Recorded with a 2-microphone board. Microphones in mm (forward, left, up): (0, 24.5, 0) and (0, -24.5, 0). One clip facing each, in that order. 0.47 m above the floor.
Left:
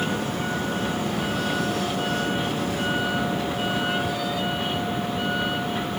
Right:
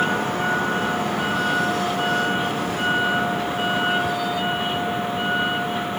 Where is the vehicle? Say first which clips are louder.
Right 5 dB; 40° right (ahead or behind); by 6.0 s 25° right (ahead or behind).